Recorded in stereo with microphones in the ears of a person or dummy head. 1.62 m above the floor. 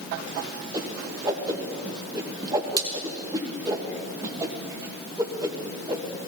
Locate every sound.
0.7 s a whoosh: 20° right (ahead or behind), 1.3 m